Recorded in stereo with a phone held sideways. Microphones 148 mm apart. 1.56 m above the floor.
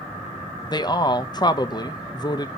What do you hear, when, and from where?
0.7 s a man speaking: 30° left (ahead or behind), 0.6 m